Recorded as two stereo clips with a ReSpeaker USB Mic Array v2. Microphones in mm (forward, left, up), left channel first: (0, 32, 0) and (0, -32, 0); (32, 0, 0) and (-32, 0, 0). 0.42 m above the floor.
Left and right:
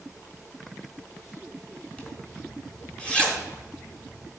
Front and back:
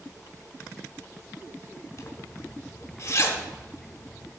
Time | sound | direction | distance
2.0 | a zipper | 20° left | 1.2 m